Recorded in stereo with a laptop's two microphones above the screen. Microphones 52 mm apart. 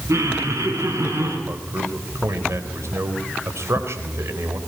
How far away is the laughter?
About 7.5 m.